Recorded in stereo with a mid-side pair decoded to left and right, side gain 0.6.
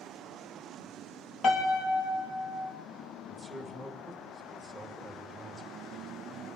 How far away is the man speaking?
About 2.5 m.